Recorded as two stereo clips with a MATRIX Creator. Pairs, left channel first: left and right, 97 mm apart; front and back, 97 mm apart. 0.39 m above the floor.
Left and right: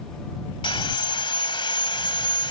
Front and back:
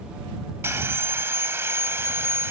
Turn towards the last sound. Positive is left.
turn(degrees=115)